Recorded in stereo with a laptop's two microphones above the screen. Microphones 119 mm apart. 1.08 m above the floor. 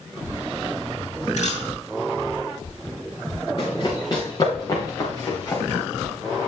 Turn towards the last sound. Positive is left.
turn(degrees=20)  # may be behind; listen again after turning